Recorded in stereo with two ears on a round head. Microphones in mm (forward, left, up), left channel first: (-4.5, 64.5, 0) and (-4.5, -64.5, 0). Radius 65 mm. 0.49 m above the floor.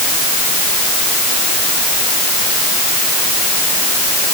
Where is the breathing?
I don't hear breathing.